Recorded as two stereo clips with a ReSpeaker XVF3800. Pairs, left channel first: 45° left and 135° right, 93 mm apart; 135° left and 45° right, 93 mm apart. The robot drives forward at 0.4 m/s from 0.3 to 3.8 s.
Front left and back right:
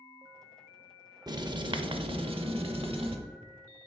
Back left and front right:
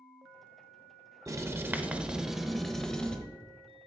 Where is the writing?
95° right, 0.6 m; by 3.2 s 145° right, 1.0 m.